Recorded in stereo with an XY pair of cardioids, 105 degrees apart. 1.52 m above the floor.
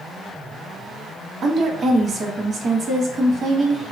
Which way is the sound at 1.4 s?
45° right.